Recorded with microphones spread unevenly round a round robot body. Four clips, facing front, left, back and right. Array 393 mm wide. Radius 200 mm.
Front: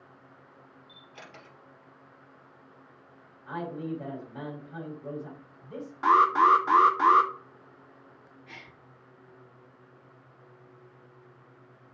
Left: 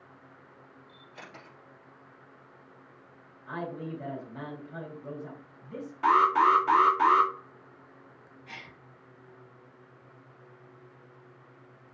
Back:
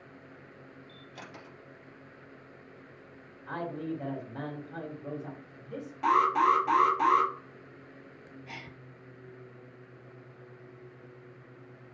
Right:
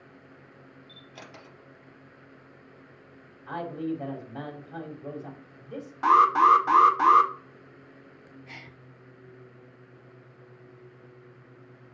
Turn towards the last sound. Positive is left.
turn(degrees=-160)